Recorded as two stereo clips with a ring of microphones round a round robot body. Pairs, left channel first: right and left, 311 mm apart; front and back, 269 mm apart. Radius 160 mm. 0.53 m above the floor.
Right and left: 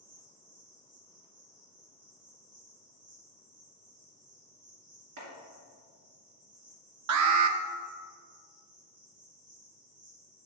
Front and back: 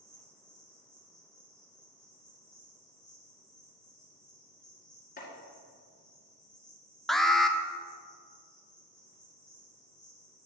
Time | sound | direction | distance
0.0 | an insect | 85° left | 2.5 m
5.2 | chopping | 60° left | 2 m
7.1 | an alarm | 90° left | 0.6 m